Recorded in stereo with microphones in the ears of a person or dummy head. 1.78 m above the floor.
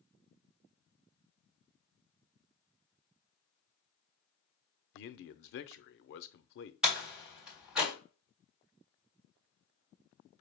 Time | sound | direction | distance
4.9 | a man speaking | 55° left (ahead or behind) | 0.6 m
6.8 | a door slam | 5° right (ahead or behind) | 1.8 m